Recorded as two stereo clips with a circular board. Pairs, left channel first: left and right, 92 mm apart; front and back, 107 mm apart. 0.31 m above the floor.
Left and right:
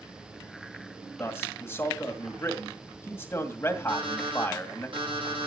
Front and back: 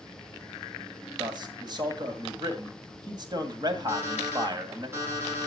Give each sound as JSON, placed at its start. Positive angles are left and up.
{"t": 1.2, "sound": "a man speaking", "azimuth_deg": 150, "distance_m": 1.9}
{"t": 3.9, "sound": "an alarm clock", "azimuth_deg": -115, "distance_m": 6.0}